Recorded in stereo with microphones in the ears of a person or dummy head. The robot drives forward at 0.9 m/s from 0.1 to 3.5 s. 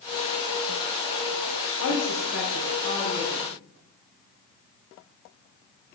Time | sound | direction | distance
1.8 | a woman speaking | 85° left | 0.9 m